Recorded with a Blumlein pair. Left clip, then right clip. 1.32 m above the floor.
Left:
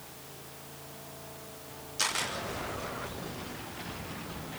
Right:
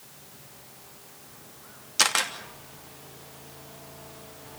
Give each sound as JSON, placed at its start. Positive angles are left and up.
{"t": 2.0, "sound": "a camera shutter", "azimuth_deg": -60, "distance_m": 3.0}